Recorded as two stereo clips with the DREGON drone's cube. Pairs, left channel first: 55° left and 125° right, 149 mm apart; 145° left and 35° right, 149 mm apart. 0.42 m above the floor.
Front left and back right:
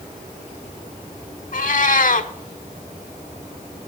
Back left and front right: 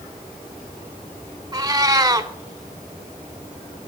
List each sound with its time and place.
1.5 s a cat meowing: 30° left, 0.6 m